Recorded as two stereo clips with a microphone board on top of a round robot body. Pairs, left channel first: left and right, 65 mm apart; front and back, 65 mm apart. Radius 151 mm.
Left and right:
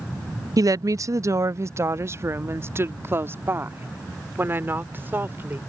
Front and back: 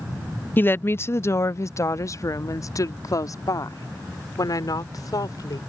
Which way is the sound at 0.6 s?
60° right.